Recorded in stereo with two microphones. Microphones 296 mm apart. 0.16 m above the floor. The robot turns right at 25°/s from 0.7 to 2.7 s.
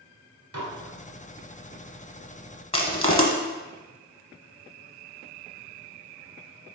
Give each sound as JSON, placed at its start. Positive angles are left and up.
{"t": 0.5, "sound": "dishes clattering", "side_deg": -60, "distance_m": 1.6}
{"t": 2.7, "sound": "crushing", "side_deg": 20, "distance_m": 0.9}